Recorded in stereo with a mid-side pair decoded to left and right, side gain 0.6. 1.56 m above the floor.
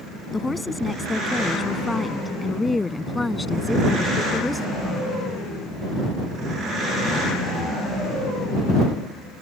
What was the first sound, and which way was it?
A woman speaking, 15° left.